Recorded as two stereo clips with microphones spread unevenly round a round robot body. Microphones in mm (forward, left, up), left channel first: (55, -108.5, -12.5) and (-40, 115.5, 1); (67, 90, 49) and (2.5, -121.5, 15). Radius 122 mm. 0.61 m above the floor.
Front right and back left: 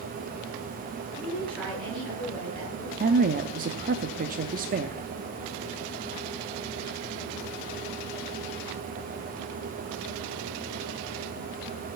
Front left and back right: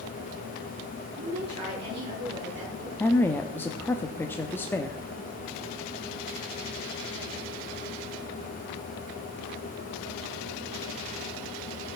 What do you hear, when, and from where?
1.2 s a woman speaking: 150° right, 9 m
3.0 s a woman speaking: 160° left, 0.7 m